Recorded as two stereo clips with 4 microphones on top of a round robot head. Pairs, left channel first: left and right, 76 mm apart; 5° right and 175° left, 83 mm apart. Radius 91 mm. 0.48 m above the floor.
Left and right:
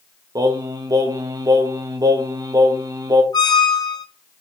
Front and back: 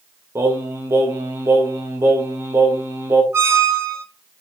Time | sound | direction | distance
0.3 | singing | 125° right | 1.3 m
3.3 | a squeak | 115° left | 1.2 m